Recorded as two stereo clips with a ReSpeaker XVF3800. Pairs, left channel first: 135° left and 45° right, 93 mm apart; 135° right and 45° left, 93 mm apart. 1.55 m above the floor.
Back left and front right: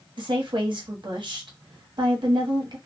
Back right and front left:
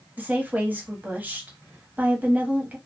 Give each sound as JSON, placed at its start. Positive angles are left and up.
{"t": 0.2, "sound": "a woman speaking", "azimuth_deg": -25, "distance_m": 0.9}